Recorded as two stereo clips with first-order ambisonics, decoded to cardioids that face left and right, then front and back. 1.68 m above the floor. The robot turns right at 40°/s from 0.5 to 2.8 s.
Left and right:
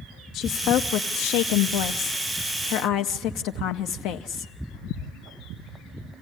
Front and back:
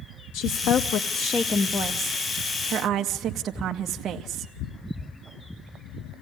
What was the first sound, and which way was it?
A woman speaking, 30° left.